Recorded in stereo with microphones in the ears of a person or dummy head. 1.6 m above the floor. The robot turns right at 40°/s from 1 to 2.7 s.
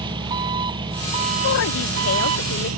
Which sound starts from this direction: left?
A woman speaking, at 1.4 s.